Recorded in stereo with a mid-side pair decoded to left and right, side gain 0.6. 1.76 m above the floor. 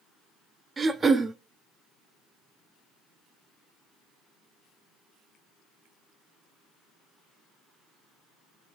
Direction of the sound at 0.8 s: 25° right.